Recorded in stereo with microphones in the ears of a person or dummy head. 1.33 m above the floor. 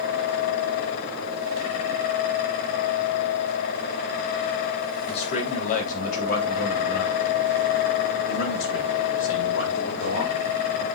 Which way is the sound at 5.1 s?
40° left (ahead or behind).